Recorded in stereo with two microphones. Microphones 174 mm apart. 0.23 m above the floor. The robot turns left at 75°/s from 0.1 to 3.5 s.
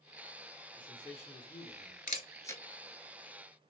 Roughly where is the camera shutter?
Left.